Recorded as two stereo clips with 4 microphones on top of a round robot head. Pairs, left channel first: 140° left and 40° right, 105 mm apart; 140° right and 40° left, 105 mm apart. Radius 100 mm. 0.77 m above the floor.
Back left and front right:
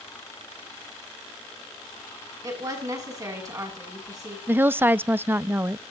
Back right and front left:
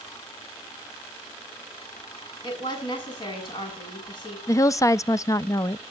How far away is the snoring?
No snoring in this recording.